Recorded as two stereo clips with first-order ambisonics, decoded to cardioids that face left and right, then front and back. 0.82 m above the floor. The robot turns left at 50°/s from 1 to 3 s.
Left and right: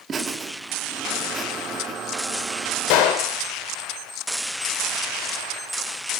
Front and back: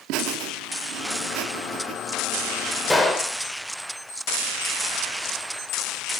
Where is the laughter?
160° right, 1.4 m; by 2.0 s 155° left, 1.4 m.